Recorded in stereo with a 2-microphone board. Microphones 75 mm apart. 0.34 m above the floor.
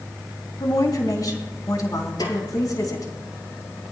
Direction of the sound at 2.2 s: 80° left.